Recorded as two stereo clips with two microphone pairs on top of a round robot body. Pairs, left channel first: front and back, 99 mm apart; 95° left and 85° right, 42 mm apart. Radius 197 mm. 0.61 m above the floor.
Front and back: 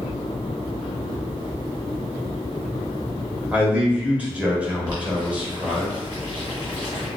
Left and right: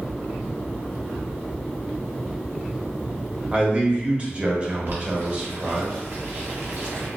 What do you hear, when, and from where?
3.5 s a man speaking: 110° right, 1.2 m
4.9 s boiling: 125° right, 0.8 m